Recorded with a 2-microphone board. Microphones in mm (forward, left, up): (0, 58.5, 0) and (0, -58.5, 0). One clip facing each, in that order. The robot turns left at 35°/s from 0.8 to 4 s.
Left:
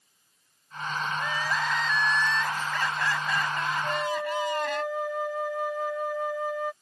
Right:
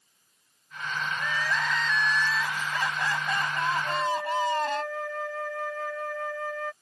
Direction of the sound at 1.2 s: 30° left.